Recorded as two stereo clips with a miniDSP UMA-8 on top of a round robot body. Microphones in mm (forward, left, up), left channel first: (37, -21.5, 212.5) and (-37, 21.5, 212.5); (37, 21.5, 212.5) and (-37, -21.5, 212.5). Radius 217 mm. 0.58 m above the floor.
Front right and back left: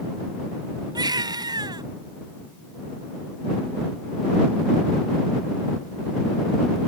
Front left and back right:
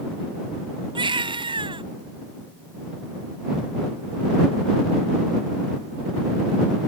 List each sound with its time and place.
0.9 s a baby crying: 170° right